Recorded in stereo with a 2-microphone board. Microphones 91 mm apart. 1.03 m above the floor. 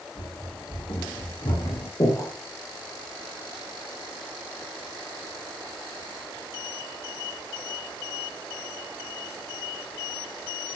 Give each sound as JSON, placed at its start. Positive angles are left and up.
{"t": 0.1, "sound": "running footsteps", "side_deg": 70, "distance_m": 3.5}
{"t": 2.0, "sound": "breathing", "side_deg": 40, "distance_m": 1.9}